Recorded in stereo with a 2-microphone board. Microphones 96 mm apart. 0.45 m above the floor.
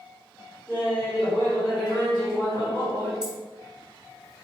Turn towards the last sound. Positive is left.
turn(degrees=-10)  # may be behind; listen again after turning